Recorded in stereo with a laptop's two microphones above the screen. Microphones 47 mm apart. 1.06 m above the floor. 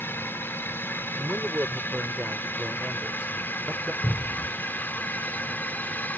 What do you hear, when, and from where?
0.0 s a drone: 55° left (ahead or behind); by 6.2 s 40° left (ahead or behind)
1.2 s a man speaking: 35° right (ahead or behind)
4.0 s a cupboard door: 5° left (ahead or behind)